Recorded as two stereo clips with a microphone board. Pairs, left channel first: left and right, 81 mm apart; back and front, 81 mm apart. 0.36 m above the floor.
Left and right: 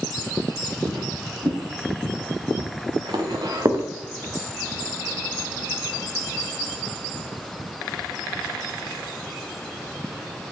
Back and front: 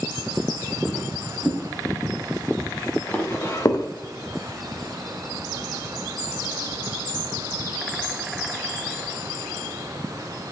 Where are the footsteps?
85° right, 5 m; by 3.9 s 145° right, 1.5 m.